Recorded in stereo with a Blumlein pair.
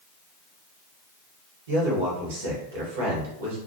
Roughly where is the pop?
No pop in this recording.